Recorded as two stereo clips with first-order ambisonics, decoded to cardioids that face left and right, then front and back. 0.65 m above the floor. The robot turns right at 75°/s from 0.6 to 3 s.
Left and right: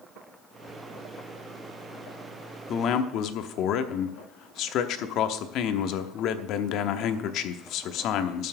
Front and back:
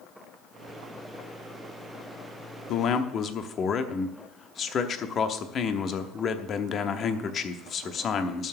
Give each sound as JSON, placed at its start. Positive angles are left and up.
{"t": 2.7, "sound": "a man speaking", "azimuth_deg": 35, "distance_m": 0.9}